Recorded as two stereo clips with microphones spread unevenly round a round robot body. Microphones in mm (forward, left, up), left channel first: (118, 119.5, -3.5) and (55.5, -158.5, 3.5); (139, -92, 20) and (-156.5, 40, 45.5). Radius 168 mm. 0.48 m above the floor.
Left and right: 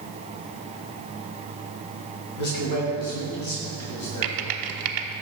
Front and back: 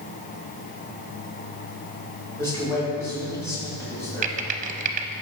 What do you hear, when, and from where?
2.4 s a man speaking: 55° left, 2.5 m
4.2 s typing on a keyboard: 135° right, 0.5 m